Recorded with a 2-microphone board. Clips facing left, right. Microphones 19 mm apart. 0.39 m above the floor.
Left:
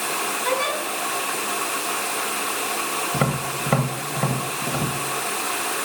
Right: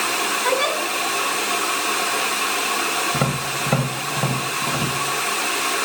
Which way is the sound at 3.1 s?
20° left (ahead or behind).